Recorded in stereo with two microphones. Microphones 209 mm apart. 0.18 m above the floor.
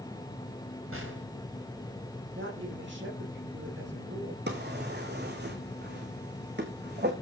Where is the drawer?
55° right (ahead or behind), 2.5 m.